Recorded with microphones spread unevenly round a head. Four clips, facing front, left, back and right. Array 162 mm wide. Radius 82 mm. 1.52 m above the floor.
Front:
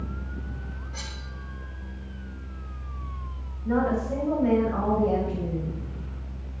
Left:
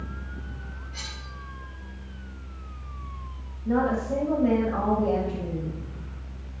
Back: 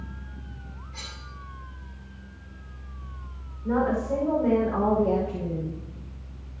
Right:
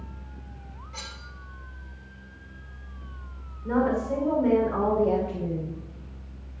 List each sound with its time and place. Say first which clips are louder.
0.9 s cutlery clinking: right 3 dB, front 3 dB; 55° right, 4 m
3.6 s a woman speaking: even, even; 135° right, 6 m